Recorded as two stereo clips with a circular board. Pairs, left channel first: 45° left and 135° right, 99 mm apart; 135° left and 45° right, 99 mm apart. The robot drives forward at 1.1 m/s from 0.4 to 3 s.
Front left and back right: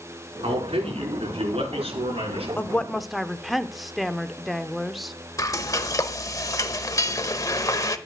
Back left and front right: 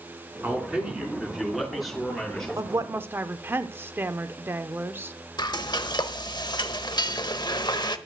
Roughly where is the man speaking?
Behind right.